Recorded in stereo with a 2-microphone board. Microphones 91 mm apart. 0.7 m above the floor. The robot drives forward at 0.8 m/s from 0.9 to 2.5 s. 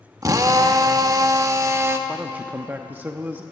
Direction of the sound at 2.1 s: 15° right (ahead or behind).